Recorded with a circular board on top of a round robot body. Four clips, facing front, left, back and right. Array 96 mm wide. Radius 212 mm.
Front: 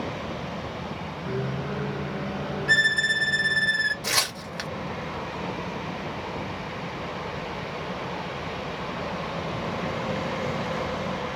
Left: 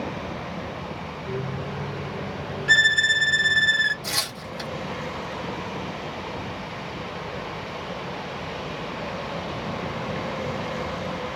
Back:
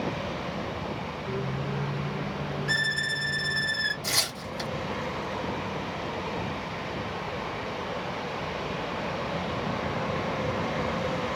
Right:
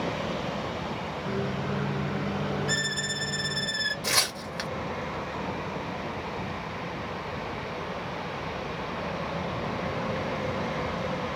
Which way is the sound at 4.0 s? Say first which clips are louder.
Right 2 dB, front 3 dB; 30° right.